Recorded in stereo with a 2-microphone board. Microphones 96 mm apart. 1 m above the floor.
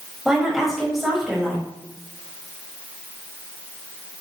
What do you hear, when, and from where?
0.2 s a woman speaking: 5° right (ahead or behind), 5 m